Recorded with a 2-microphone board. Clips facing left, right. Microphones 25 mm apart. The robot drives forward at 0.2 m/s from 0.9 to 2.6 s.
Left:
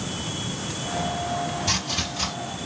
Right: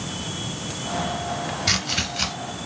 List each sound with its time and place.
1.7 s chopping: 40° right (ahead or behind), 2.5 m